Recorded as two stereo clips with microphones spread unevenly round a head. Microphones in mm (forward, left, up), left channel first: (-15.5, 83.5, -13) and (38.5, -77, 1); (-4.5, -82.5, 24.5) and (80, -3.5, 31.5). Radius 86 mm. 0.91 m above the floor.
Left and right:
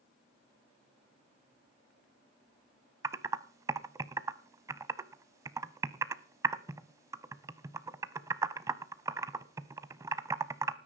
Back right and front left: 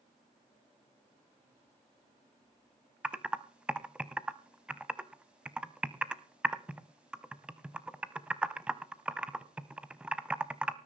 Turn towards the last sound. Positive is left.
turn(degrees=-25)